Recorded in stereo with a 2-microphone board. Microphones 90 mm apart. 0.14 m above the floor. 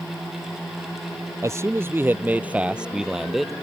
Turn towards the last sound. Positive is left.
turn(degrees=0)  # may be behind; listen again after turning